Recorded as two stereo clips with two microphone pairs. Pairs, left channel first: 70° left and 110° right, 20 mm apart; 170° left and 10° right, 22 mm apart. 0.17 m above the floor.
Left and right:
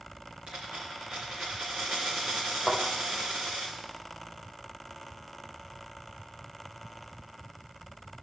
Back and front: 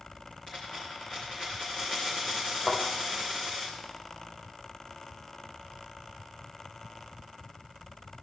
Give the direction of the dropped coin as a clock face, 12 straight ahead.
5 o'clock.